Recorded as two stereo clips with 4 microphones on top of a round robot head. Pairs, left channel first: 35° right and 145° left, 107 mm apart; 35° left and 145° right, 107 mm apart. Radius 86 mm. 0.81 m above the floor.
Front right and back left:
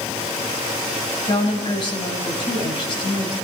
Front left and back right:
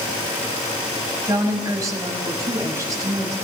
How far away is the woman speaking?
About 6 m.